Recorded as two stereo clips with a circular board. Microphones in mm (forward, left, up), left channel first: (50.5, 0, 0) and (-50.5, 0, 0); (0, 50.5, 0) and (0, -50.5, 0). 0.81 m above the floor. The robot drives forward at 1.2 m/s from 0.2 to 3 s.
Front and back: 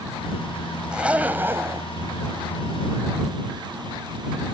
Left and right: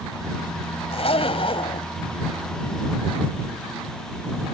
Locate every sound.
0.9 s a zipper: 100° left; by 1.9 s 120° left